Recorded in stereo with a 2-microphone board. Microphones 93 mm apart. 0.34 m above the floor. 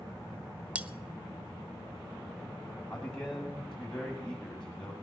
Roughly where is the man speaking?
Centre.